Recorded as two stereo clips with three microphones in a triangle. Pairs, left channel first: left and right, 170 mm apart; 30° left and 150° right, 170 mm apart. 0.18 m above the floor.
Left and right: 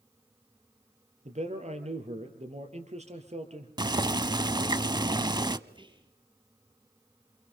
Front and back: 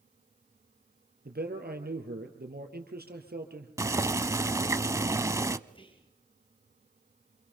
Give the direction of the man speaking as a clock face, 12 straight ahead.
5 o'clock.